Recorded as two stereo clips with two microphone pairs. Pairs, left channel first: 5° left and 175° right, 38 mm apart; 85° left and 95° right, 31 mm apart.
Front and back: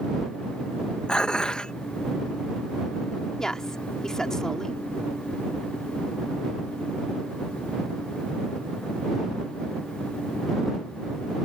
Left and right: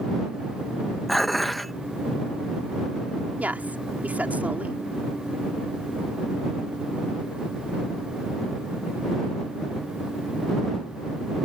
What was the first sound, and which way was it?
Dishes clattering, straight ahead.